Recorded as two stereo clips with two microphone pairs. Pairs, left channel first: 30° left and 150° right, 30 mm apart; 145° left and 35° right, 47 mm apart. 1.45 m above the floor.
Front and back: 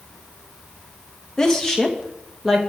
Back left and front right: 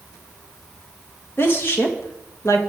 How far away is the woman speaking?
About 2.0 m.